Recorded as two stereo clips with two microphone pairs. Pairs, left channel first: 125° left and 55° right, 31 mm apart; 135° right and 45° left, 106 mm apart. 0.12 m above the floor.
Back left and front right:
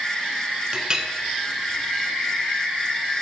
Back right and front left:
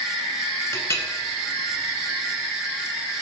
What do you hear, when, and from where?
0.7 s a clink: 90° right, 1.1 m